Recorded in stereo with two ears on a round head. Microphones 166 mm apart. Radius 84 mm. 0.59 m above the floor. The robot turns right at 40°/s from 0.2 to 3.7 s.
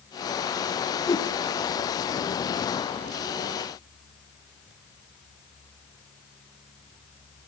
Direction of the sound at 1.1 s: 20° left (ahead or behind).